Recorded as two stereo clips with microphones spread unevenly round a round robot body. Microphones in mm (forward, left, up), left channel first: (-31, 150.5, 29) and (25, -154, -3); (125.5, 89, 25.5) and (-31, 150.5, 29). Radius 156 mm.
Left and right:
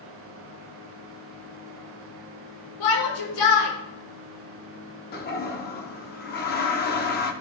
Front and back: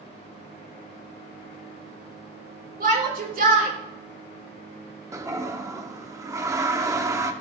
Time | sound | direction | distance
2.8 | a shout | 125° left | 6.5 m
5.1 | a toilet flushing | 115° left | 1.2 m